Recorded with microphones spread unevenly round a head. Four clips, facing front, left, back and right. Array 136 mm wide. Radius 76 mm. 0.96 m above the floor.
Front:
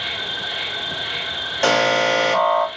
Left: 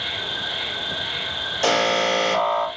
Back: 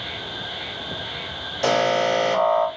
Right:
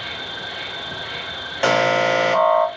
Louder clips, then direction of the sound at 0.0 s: Left 1 dB, front 4 dB; 20° right.